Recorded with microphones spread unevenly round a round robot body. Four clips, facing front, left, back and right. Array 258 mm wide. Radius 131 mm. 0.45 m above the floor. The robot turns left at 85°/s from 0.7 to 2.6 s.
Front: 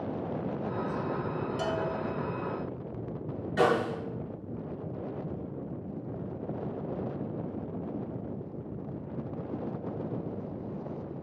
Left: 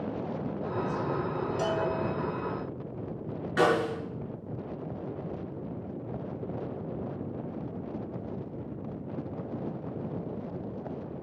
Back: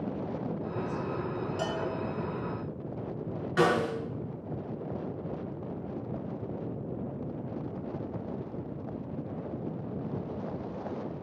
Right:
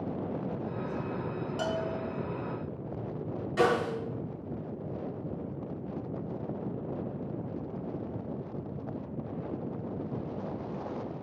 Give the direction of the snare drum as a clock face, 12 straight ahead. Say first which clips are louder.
Left 2 dB, even; 7 o'clock.